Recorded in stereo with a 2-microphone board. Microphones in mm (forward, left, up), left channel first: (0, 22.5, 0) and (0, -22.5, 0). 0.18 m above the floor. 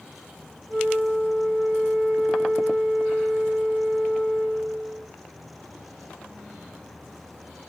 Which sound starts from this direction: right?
A flute, at 0.7 s.